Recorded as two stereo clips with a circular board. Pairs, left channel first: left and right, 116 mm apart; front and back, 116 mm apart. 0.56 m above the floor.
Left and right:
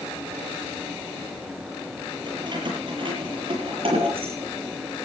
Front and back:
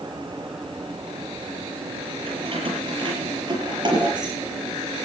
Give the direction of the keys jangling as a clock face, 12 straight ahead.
5 o'clock.